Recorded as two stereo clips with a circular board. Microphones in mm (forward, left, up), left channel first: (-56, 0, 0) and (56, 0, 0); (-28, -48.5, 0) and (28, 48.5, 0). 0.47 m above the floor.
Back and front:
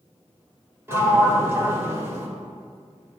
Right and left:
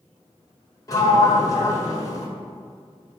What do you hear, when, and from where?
0.9 s a sliding door: 65° right, 1.2 m